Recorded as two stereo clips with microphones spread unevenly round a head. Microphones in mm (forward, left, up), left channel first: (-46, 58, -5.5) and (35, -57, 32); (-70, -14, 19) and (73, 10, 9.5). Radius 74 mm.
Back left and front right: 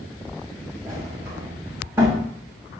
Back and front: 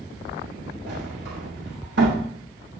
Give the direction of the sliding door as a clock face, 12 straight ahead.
11 o'clock.